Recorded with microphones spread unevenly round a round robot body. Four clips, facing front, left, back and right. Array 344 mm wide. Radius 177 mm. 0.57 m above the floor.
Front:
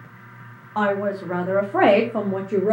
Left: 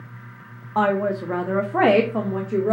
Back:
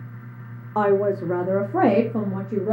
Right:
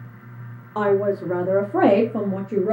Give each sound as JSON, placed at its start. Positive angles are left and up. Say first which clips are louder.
{"t": 0.8, "sound": "a woman speaking", "louder": "right 1 dB, back 3 dB", "azimuth_deg": -175, "distance_m": 0.8}